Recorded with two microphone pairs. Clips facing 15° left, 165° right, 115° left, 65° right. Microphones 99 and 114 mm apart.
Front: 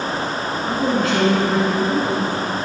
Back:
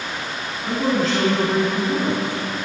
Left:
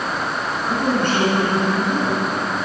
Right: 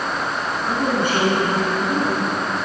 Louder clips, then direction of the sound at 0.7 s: Even, left 1 dB; 135° right.